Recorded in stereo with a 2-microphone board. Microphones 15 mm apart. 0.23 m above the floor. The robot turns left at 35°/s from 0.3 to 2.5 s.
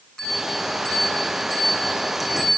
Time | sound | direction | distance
0.2 | a bell | 65° left (ahead or behind) | 8 m